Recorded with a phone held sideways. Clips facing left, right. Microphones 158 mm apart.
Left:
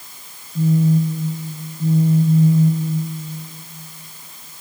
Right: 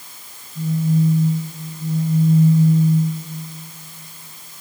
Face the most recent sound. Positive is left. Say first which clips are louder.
# left 3 dB
turn(degrees=55)  # may be behind; listen again after turning